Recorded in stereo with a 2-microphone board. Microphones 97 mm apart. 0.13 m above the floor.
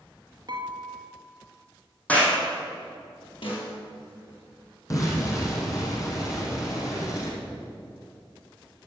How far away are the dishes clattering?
About 1.9 m.